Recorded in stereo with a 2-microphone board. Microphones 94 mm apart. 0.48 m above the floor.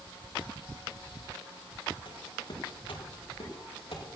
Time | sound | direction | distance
2.0 | footsteps | 60° left (ahead or behind) | 5 m